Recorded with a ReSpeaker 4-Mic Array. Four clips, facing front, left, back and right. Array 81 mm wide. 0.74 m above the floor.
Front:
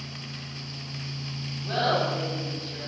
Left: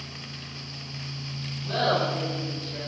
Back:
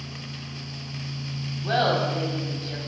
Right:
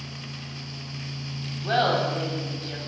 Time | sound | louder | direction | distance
1.6 | laughter | right 2 dB, back 2 dB | 130° right | 5 m